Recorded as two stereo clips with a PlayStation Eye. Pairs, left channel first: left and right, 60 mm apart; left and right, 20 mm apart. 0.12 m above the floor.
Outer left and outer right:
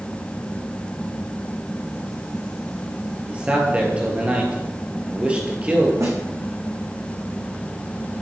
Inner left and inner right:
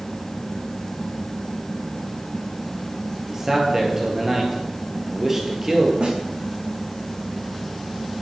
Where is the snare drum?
55° right (ahead or behind), 3 m.